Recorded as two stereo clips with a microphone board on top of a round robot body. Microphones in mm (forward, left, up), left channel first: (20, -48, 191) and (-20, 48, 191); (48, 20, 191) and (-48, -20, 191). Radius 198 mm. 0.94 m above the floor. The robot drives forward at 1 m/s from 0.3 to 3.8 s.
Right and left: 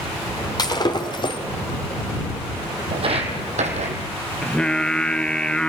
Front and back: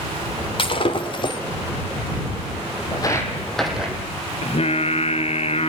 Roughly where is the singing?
Ahead.